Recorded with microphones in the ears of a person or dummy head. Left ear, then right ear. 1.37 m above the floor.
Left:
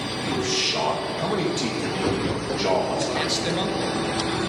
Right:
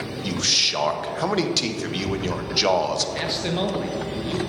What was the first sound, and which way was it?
A man speaking, 70° right (ahead or behind).